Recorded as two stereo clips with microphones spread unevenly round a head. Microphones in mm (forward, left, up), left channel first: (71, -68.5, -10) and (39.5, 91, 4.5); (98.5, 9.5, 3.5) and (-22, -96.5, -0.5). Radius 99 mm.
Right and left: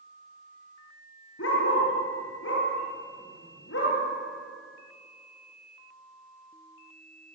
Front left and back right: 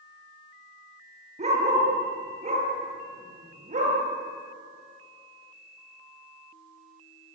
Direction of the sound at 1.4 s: 90° right.